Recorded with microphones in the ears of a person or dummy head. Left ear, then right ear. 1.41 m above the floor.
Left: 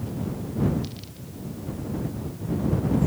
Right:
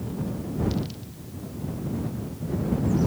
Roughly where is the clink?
No clink in this recording.